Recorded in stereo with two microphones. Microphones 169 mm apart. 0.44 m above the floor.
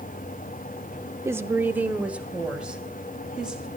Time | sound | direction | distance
1.2 | a woman speaking | 15° right (ahead or behind) | 0.8 m